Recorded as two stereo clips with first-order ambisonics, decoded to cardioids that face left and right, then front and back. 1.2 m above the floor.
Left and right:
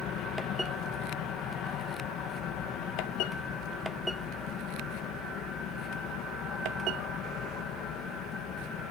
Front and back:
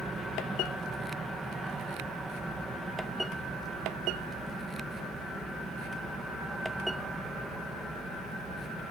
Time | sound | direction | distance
0.0 | an aircraft | 105° left | ?